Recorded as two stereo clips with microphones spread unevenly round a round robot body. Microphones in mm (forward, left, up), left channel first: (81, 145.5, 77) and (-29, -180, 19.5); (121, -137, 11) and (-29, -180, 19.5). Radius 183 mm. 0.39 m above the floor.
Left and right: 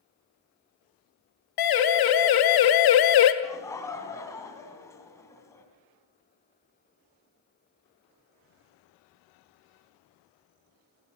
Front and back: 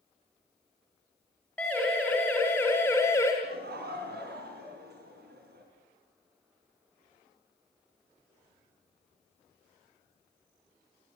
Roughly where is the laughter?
Behind left.